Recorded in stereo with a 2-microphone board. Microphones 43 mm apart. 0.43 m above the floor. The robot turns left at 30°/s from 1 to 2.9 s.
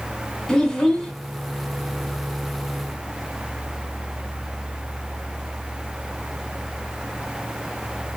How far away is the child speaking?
About 0.7 m.